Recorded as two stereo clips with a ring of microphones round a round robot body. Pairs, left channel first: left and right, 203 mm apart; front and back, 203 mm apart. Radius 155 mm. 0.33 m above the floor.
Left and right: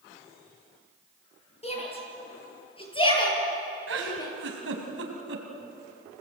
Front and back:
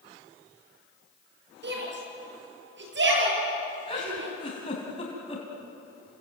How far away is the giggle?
About 3 m.